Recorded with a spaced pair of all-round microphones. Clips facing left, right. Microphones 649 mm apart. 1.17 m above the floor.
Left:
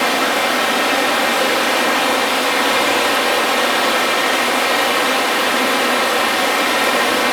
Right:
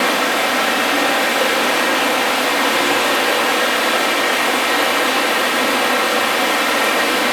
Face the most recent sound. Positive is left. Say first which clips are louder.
# even
turn(degrees=70)  # may be behind; listen again after turning